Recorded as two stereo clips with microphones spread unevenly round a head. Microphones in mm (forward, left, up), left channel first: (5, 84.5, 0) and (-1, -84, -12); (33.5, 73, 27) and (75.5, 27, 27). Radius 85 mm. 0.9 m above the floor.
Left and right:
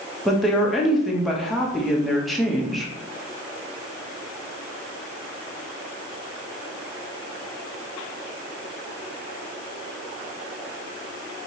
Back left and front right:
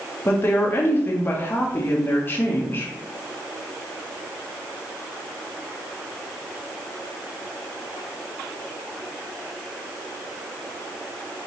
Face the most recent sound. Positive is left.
turn(degrees=180)